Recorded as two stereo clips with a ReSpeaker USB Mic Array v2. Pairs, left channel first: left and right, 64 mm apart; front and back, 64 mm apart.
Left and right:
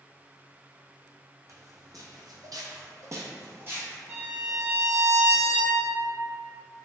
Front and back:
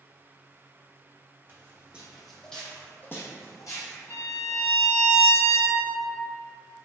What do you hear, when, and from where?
1.5 s footsteps: 120° right, 0.8 m; by 4.0 s 25° right, 0.9 m
4.1 s a violin: 35° right, 1.9 m